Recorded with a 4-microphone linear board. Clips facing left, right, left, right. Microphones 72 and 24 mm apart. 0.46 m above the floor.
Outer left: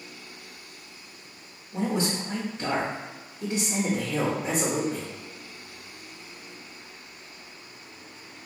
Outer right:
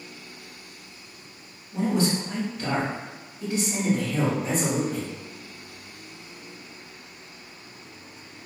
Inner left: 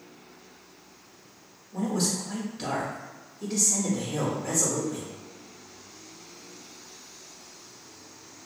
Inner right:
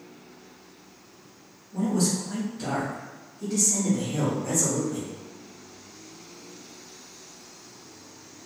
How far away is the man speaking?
About 0.9 m.